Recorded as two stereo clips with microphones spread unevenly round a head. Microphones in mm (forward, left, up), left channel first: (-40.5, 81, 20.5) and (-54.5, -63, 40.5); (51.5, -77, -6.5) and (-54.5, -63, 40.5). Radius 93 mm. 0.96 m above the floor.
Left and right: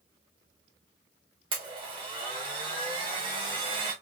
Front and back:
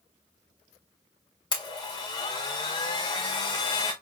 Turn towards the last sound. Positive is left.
turn(degrees=-30)